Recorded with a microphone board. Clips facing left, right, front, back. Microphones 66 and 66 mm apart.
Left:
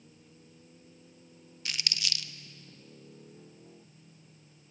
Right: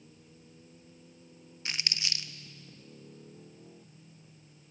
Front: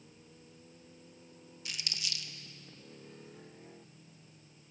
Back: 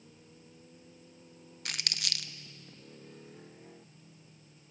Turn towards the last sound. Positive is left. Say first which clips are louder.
# even, back 4 dB
turn(degrees=-150)